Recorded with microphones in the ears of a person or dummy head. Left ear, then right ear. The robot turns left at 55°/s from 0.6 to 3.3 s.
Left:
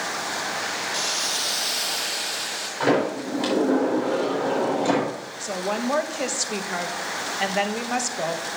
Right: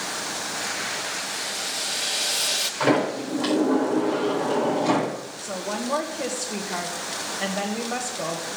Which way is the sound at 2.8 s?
20° left (ahead or behind).